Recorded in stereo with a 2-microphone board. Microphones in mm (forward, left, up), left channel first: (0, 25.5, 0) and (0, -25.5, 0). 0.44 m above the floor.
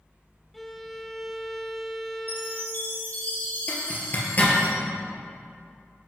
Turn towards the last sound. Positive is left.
turn(degrees=40)  # may be behind; listen again after turning